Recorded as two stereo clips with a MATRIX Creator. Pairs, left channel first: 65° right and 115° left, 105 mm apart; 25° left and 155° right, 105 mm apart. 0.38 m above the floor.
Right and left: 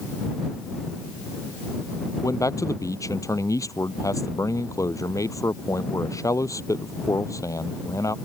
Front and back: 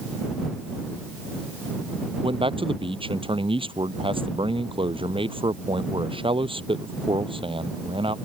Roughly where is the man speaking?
Behind right.